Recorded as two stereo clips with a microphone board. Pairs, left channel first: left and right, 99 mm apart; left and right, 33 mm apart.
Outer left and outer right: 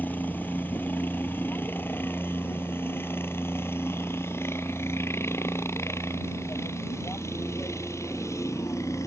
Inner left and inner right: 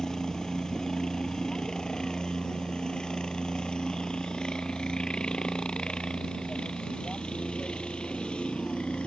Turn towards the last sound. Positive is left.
turn(degrees=30)  # may be behind; listen again after turning